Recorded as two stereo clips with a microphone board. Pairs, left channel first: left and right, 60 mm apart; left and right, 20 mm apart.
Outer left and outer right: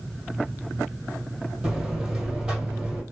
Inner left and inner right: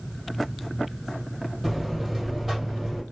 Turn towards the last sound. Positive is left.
turn(degrees=-10)  # may be behind; listen again after turning